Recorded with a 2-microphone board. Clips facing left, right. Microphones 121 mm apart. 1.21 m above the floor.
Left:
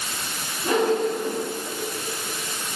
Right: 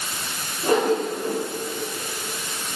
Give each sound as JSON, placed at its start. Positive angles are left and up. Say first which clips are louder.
{"t": 0.6, "sound": "a whoosh", "louder": "right 1 dB", "side_deg": -40, "distance_m": 4.5}